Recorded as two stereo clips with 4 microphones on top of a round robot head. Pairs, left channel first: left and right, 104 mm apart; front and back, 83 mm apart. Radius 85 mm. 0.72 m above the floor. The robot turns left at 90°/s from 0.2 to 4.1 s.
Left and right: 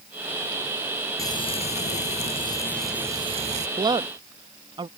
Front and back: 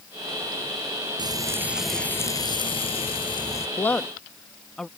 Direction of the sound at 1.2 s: 150° left.